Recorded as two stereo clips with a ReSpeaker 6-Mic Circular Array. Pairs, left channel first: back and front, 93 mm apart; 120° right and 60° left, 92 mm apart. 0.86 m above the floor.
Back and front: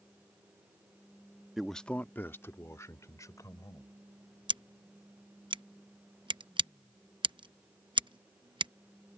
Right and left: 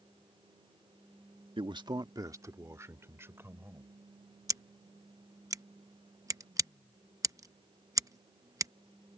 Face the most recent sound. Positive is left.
turn(degrees=10)